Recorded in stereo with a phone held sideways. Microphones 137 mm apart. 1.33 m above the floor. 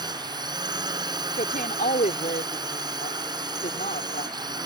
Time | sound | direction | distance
0.0 | a drone | 30° right (ahead or behind) | ?
1.3 | a woman speaking | 80° left | ?